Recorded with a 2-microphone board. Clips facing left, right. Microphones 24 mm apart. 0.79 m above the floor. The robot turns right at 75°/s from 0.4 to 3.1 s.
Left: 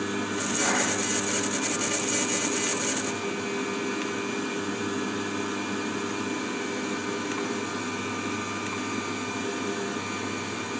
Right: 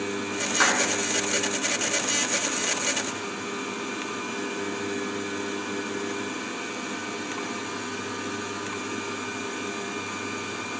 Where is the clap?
85° right, 7 m; by 0.9 s 75° right (ahead or behind), 7 m.